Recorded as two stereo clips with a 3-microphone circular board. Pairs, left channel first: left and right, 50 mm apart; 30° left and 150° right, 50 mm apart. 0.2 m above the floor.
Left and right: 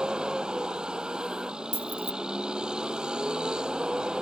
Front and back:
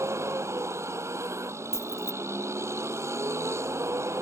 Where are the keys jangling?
45° left.